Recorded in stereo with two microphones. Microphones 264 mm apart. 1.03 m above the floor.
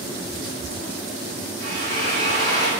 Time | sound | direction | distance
1.6 | a drill | 40° left (ahead or behind) | 7 m